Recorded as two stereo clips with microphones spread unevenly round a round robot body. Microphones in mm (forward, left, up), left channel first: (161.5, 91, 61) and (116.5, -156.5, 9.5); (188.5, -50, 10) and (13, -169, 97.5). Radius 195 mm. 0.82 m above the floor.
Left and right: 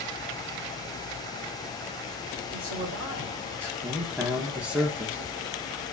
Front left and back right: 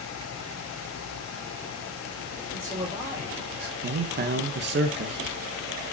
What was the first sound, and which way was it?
A man speaking, 85° right.